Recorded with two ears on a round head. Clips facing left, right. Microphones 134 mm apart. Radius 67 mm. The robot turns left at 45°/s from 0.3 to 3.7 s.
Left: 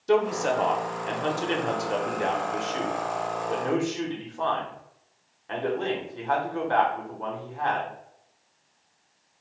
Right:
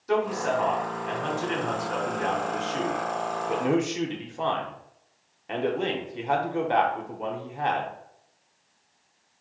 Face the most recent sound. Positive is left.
turn(degrees=-30)